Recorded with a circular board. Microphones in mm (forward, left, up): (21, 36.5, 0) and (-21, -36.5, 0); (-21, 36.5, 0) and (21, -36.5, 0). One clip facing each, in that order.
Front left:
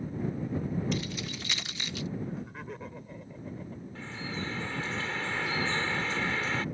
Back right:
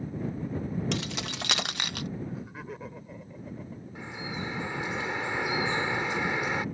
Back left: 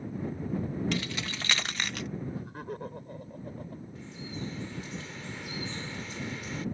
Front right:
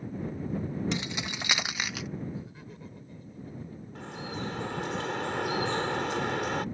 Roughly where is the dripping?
Ahead right.